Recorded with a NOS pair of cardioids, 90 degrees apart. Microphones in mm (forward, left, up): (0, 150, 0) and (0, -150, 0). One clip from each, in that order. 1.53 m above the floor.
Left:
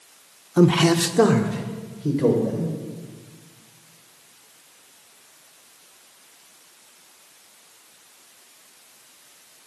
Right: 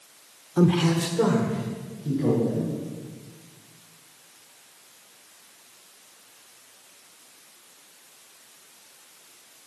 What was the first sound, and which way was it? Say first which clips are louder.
A man speaking: left 5 dB; 15° left.